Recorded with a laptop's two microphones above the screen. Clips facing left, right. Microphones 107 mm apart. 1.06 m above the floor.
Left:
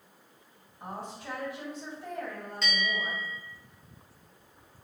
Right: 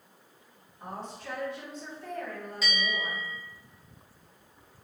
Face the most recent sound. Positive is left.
turn(degrees=-5)  # may be behind; listen again after turning